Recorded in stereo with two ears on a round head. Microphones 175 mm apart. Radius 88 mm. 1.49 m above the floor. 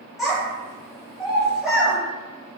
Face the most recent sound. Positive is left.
turn(degrees=0)  # may be behind; listen again after turning